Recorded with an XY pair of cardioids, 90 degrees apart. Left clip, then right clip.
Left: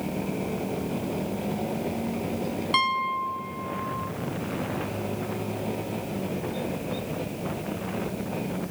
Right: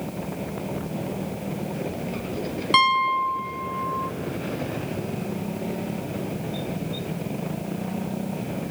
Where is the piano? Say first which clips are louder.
Right 6 dB; 40° right, 0.5 m.